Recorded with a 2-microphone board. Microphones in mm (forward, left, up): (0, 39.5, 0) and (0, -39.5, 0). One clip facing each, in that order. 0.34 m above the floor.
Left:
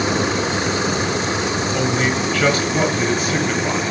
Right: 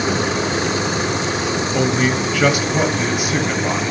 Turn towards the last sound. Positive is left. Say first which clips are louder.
# right 3 dB
turn(degrees=-10)  # may be behind; listen again after turning